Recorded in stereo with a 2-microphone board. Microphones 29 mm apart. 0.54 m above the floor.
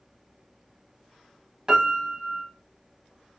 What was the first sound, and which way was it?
A piano, 25° right (ahead or behind).